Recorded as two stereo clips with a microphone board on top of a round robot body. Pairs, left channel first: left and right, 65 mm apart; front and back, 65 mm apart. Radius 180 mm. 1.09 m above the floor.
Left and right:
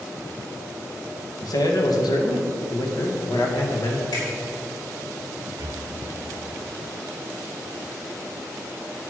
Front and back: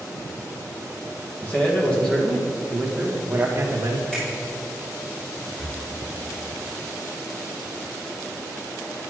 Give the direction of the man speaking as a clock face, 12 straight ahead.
10 o'clock.